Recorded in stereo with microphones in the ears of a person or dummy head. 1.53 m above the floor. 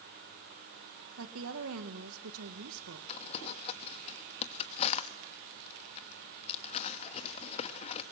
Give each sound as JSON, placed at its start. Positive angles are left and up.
{"t": 1.2, "sound": "a woman speaking", "side_deg": -75, "distance_m": 1.6}
{"t": 3.1, "sound": "crumpling", "side_deg": 35, "distance_m": 1.2}